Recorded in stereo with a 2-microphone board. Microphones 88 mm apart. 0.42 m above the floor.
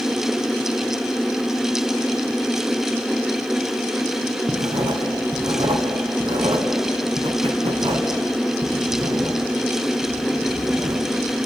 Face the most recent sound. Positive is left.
turn(degrees=-80)